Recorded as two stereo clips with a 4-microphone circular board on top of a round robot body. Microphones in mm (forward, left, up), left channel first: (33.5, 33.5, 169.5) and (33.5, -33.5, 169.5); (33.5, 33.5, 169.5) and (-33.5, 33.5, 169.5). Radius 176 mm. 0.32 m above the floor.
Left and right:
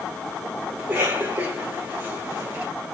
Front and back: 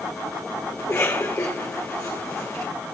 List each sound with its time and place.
0.8 s a cough: 50° right, 2.5 m